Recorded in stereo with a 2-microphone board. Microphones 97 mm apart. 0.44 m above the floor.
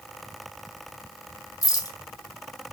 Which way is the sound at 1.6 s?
40° left (ahead or behind).